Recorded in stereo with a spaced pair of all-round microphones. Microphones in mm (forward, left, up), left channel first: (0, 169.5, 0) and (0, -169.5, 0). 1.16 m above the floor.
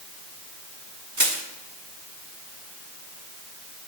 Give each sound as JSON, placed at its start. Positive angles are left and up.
{"t": 1.2, "sound": "crushing", "side_deg": -60, "distance_m": 1.6}